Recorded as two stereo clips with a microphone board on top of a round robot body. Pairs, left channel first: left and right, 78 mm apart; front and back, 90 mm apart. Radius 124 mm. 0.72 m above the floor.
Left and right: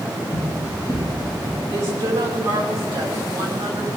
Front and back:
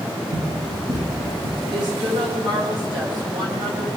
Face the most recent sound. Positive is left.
turn(degrees=-145)